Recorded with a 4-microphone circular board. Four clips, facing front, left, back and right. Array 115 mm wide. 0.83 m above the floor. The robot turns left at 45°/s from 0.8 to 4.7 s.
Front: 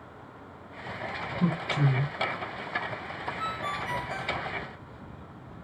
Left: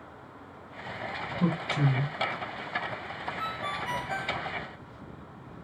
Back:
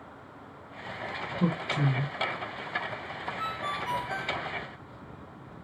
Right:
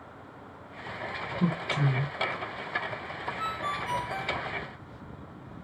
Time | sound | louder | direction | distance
1.4 | a man speaking | left 1 dB, front 1 dB | 165° left | 0.8 m
3.4 | a ringtone | right 2 dB, even | 175° left | 1.7 m